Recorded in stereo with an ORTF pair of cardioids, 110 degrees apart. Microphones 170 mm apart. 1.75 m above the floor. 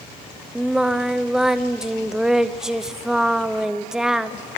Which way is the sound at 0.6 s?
5° right.